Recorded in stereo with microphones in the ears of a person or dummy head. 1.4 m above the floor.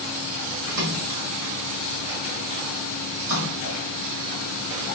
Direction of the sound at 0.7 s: 65° right (ahead or behind).